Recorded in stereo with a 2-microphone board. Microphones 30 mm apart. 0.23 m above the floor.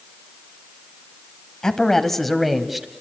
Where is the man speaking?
20° left (ahead or behind), 1.6 m; by 2.9 s 10° right (ahead or behind), 1.6 m.